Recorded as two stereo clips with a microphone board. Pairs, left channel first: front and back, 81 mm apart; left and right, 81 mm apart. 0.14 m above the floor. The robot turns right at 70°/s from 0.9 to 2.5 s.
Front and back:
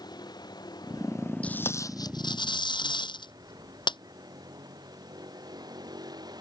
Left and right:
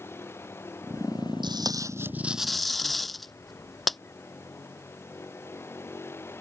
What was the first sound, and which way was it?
A vehicle, 30° left.